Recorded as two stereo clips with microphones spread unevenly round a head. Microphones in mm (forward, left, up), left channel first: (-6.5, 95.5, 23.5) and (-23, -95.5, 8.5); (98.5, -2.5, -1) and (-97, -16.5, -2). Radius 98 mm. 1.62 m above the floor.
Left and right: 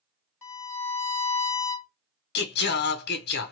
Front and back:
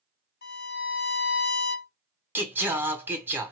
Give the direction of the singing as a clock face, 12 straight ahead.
9 o'clock.